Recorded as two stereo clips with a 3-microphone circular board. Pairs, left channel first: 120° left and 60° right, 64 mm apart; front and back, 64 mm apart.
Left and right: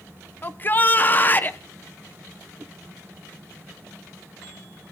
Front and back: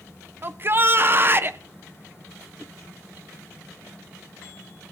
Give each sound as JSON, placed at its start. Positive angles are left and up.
{"t": 0.4, "sound": "a shout", "azimuth_deg": 155, "distance_m": 0.6}
{"t": 2.6, "sound": "a whoosh", "azimuth_deg": -70, "distance_m": 0.7}